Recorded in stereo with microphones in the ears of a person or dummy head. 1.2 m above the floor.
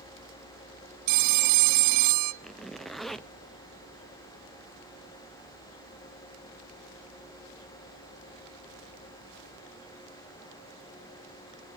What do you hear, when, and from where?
1.1 s a phone ringing: 50° right (ahead or behind), 0.6 m
2.4 s a zipper: centre (ahead or behind), 0.6 m